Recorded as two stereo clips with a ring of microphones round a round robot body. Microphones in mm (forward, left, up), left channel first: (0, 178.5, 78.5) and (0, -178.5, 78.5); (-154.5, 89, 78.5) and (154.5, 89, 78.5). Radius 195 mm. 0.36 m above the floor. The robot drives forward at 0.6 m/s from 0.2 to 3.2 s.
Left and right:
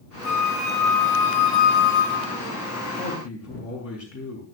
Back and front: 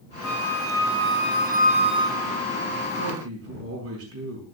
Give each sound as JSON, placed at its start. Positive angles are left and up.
{"t": 0.2, "sound": "a flute", "azimuth_deg": 40, "distance_m": 1.7}
{"t": 3.0, "sound": "a man speaking", "azimuth_deg": 40, "distance_m": 5.5}